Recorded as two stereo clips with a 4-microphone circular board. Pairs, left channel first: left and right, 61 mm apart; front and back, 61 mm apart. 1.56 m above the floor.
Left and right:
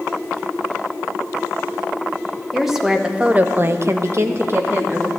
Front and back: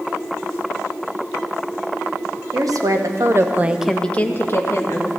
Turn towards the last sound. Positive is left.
turn(degrees=-35)